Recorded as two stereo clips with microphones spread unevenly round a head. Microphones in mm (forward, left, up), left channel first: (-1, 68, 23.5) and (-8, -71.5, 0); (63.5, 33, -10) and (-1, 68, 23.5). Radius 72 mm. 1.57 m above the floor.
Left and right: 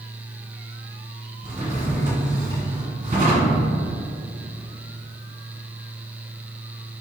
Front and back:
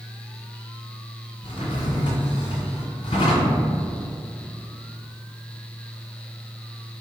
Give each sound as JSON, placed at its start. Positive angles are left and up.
{"t": 1.4, "sound": "a drawer", "azimuth_deg": -50, "distance_m": 1.5}